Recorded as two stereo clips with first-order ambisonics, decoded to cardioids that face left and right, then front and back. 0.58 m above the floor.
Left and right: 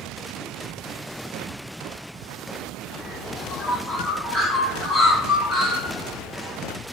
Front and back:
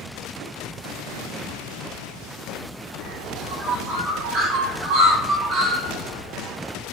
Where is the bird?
160° left, 1.7 m.